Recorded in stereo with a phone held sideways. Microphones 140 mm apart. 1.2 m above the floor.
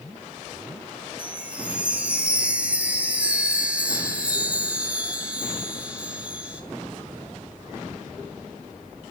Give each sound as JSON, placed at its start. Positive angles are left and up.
{"t": 1.2, "sound": "a chime", "side_deg": -10, "distance_m": 1.4}